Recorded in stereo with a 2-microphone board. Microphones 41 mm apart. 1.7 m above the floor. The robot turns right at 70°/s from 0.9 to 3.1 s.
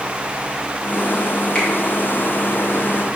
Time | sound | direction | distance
1.6 | a finger snap | 20° left (ahead or behind) | 2 m